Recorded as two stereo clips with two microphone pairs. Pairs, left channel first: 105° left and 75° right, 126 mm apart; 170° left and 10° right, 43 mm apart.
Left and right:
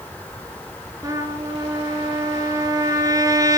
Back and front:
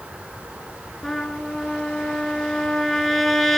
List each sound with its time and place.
1.0 s a trumpet: 110° right, 1.5 m